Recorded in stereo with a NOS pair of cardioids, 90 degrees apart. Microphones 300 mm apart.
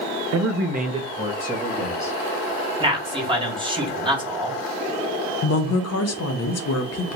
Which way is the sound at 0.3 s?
60° right.